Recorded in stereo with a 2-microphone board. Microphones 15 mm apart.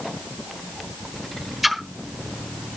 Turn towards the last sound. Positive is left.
turn(degrees=-10)  # may be behind; listen again after turning